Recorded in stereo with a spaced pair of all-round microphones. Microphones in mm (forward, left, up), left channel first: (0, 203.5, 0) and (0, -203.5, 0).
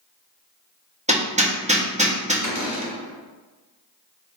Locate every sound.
1.1 s hammering: 15° right (ahead or behind), 0.9 m
2.4 s a cupboard door: 40° left (ahead or behind), 1.3 m